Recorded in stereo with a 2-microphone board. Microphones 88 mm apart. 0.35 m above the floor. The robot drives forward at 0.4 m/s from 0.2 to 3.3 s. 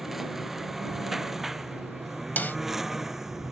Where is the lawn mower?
5° right (ahead or behind).